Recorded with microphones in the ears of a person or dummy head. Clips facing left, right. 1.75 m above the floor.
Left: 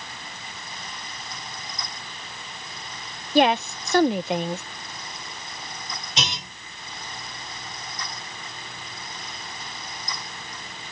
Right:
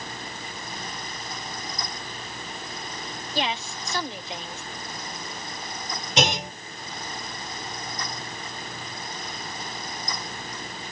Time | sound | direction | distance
3.4 | a woman speaking | 45° left (ahead or behind) | ?
6.2 | a clunk | 55° right (ahead or behind) | ?